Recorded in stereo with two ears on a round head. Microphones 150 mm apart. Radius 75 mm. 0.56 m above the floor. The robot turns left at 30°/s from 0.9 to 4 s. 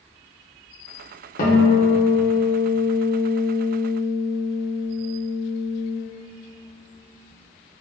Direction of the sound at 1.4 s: 125° left.